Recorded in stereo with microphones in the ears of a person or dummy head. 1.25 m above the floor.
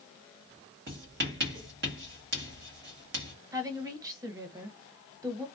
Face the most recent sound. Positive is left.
turn(degrees=-20)  # may be behind; listen again after turning